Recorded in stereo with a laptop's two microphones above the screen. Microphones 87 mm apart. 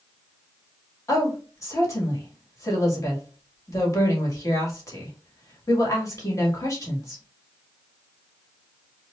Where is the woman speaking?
35° left (ahead or behind), 1.8 m.